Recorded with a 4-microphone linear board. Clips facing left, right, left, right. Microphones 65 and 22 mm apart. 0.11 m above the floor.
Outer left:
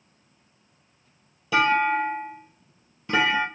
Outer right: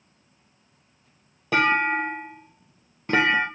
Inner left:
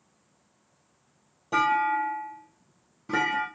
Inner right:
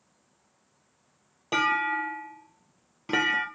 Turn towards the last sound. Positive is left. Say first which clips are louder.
# outer left 1 dB, inner left 2 dB
turn(degrees=-50)  # may be behind; listen again after turning